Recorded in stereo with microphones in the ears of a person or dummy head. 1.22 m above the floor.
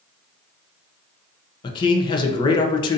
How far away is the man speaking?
About 0.6 m.